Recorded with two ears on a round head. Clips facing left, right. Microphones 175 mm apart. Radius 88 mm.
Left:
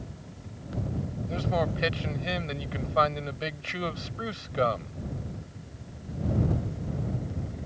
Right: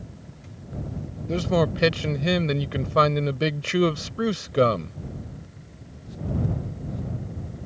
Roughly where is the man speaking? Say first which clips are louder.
Right 7 dB; right.